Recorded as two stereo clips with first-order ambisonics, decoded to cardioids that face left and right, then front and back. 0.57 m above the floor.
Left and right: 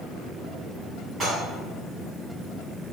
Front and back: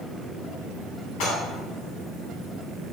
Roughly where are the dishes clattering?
Ahead.